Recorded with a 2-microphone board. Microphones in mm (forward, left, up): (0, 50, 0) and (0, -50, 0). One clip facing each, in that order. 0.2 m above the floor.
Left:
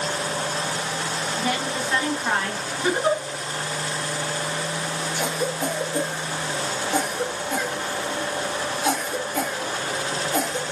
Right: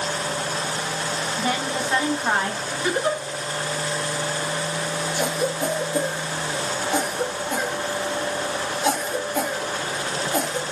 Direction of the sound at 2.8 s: 25° left (ahead or behind).